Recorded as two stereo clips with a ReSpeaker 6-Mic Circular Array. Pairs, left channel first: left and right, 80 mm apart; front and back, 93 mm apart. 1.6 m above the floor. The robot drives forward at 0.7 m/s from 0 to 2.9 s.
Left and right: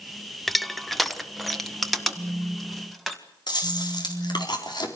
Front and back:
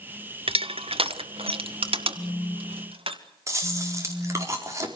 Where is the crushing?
Straight behind, 0.7 m.